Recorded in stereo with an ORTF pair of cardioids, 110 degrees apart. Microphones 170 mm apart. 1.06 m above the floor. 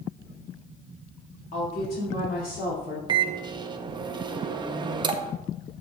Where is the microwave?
30° right, 0.6 m.